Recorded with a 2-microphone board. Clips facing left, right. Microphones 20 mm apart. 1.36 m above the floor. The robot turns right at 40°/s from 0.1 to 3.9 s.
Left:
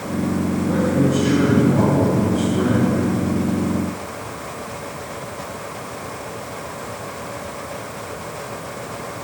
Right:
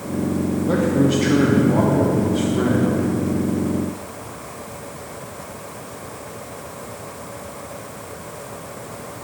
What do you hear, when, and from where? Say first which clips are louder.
0.7 s a man speaking: right 1 dB; 105° right, 1.3 m; by 2.9 s 10° right, 1.3 m